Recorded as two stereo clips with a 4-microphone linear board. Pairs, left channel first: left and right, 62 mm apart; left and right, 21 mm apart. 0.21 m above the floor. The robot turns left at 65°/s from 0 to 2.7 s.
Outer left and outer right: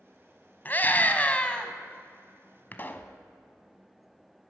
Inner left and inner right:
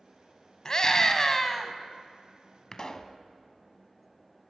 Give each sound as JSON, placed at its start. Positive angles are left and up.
{"t": 0.7, "sound": "a scream", "azimuth_deg": 95, "distance_m": 1.2}
{"t": 2.7, "sound": "a pop", "side_deg": 35, "distance_m": 0.9}